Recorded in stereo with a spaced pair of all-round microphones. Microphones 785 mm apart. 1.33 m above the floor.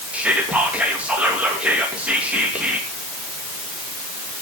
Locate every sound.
0.1 s whispering: centre (ahead or behind), 2.5 m